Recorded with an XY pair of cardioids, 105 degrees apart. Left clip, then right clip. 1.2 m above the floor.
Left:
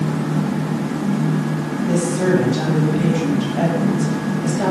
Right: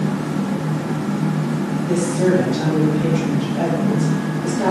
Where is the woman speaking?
20° left, 0.9 m.